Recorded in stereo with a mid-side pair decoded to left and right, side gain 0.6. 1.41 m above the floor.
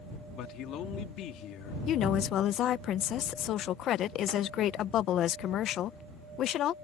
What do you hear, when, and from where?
0.3 s a man speaking: 60° left
1.9 s a woman speaking: 55° left